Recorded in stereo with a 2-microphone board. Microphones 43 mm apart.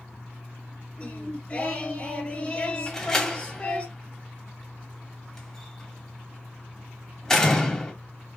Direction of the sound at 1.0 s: 25° left (ahead or behind).